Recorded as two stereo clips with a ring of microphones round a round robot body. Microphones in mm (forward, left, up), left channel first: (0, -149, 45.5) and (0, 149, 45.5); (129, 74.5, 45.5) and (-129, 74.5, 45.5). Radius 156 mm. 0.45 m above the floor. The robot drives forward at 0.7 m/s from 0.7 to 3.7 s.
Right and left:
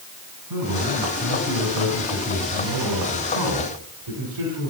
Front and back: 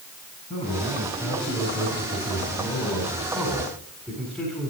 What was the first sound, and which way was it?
A man speaking, 65° left.